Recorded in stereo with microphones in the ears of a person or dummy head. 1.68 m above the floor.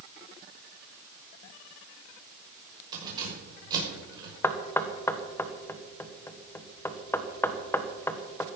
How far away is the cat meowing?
No cat meowing in this recording.